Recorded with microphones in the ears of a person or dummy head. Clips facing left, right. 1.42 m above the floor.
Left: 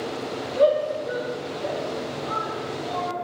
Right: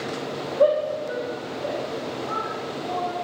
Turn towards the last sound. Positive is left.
turn(degrees=40)  # may be behind; listen again after turning